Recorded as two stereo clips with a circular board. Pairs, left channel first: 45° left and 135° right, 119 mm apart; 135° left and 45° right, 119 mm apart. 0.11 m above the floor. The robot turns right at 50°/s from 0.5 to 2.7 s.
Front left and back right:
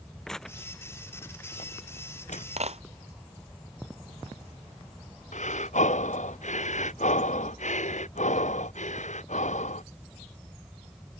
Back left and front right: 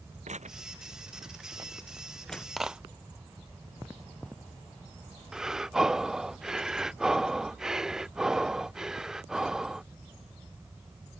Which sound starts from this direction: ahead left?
Breathing, at 5.3 s.